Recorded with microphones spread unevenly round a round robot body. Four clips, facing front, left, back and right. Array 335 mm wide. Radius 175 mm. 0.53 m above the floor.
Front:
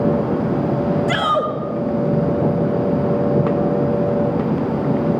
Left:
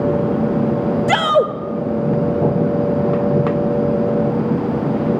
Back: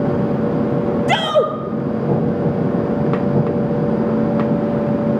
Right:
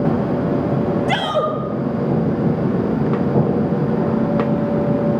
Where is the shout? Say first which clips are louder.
Left 4 dB, back 3 dB; 130° left, 2.5 m.